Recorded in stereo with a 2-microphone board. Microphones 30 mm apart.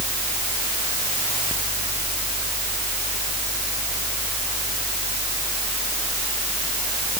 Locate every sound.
Only background noise.